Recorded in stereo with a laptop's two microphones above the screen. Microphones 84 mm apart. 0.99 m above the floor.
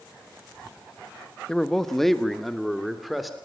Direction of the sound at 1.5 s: 10° left (ahead or behind).